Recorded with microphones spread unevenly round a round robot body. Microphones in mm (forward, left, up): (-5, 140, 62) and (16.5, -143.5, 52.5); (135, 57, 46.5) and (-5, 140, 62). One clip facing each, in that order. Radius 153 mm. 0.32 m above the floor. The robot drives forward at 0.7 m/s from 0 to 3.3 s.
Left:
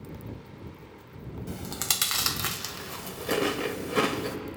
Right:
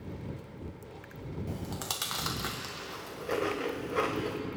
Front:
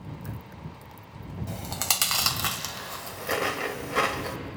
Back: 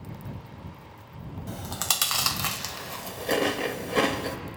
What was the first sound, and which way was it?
Chewing, 40° left.